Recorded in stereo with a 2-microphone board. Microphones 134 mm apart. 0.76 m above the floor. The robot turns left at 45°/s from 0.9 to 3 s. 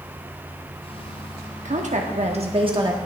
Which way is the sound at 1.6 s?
85° right.